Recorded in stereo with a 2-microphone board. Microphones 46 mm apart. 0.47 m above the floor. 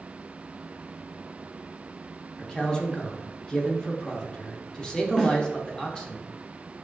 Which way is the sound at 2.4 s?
15° left (ahead or behind).